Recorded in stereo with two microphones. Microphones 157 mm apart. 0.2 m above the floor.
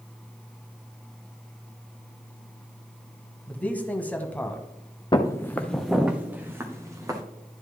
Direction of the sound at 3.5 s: 10° left (ahead or behind).